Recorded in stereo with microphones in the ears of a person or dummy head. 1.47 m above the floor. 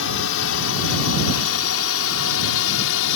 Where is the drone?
70° left (ahead or behind); by 3.2 s 65° left (ahead or behind).